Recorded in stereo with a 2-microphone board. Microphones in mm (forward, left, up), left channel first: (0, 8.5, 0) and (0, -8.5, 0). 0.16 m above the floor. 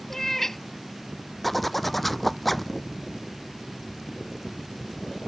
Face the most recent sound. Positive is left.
turn(degrees=10)  # may be behind; listen again after turning